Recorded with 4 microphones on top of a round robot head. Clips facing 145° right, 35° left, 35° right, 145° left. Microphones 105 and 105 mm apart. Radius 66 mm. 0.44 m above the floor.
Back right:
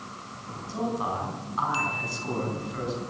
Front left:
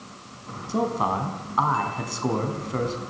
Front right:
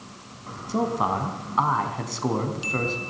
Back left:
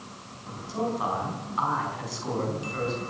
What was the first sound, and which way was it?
A man speaking, straight ahead.